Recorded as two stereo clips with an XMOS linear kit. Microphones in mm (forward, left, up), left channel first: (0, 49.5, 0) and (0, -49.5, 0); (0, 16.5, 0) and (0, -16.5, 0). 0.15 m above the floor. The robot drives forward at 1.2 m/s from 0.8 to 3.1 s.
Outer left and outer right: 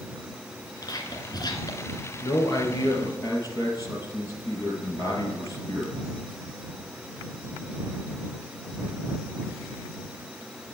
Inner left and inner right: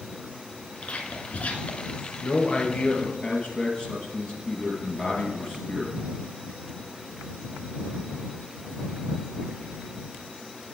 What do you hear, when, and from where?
0.8 s whispering: 40° left (ahead or behind), 1.8 m
2.2 s a man speaking: 45° left (ahead or behind), 1.7 m; by 6.0 s 35° left (ahead or behind), 2.5 m